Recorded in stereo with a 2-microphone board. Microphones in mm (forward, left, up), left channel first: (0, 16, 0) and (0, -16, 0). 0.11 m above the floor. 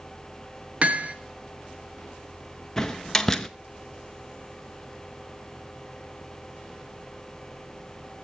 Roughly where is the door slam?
Centre.